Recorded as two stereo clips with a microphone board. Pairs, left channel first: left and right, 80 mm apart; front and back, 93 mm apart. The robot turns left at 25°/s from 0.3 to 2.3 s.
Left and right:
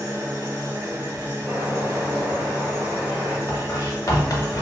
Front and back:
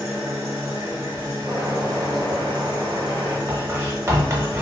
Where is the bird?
145° right, 1.2 m; by 3.4 s 165° right, 1.2 m.